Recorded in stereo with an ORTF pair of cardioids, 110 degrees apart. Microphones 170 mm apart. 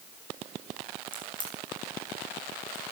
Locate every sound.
1.1 s a crack: 30° left, 9 m